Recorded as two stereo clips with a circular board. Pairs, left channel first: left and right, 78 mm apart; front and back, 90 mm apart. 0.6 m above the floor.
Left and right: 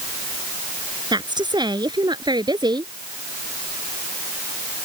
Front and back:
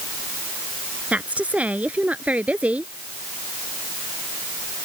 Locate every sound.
1.1 s a woman speaking: 105° right